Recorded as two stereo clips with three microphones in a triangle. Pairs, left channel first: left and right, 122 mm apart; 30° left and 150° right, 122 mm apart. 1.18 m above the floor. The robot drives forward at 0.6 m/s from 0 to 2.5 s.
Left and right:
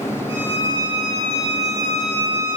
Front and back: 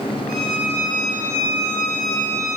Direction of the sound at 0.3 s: 45° left.